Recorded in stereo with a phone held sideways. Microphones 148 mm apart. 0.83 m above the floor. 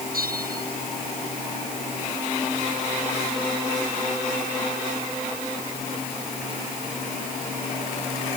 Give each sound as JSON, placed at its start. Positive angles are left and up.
{"t": 0.1, "sound": "a bell", "side_deg": -85}